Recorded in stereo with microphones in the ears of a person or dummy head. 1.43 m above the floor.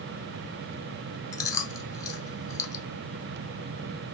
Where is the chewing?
20° left (ahead or behind), 0.6 m.